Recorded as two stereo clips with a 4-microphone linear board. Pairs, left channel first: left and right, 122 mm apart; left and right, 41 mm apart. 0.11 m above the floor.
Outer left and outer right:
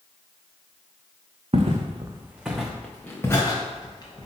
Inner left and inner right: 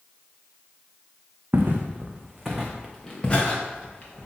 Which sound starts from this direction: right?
Footsteps, at 1.5 s.